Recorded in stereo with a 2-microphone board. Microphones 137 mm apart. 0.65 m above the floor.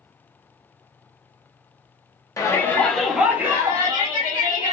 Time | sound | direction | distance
2.4 | a shout | 20° left (ahead or behind) | 0.8 m